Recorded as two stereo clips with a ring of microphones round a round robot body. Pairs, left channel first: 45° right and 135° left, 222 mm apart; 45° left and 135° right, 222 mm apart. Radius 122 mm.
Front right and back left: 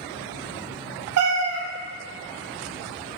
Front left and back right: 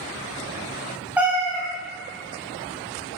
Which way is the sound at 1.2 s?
140° left.